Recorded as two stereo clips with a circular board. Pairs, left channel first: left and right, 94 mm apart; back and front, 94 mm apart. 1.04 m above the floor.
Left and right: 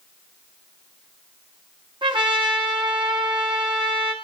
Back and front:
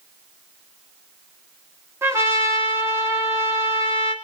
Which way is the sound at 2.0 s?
60° right.